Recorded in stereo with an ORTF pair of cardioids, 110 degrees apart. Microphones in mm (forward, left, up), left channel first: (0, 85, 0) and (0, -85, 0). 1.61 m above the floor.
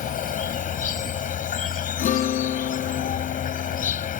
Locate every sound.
0.0 s an insect: 50° left
2.0 s a guitar: 60° left